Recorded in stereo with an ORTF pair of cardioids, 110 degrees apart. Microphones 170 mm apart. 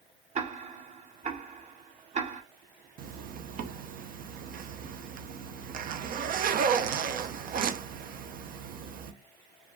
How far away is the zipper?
About 0.8 m.